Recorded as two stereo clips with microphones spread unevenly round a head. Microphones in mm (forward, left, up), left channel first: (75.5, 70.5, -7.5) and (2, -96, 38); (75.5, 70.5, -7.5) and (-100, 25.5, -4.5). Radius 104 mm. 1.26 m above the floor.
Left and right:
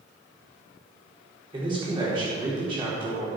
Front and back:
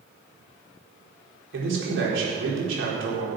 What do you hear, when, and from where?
1.5 s a man speaking: 175° left, 4 m